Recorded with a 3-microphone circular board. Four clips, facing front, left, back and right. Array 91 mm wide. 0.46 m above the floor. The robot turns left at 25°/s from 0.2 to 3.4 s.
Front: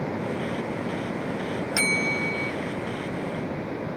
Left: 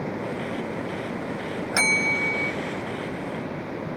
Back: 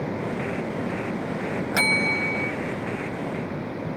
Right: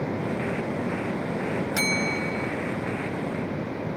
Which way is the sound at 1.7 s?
140° left.